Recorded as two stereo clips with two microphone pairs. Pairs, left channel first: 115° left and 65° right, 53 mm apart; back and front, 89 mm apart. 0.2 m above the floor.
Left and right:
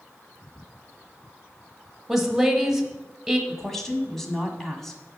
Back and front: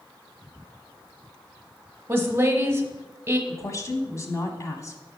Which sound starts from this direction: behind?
A woman speaking, at 3.5 s.